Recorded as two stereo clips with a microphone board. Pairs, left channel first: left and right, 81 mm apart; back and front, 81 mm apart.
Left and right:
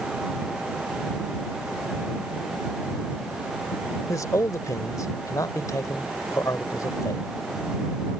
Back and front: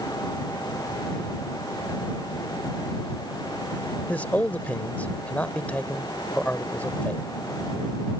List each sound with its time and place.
4.1 s a man speaking: 115° left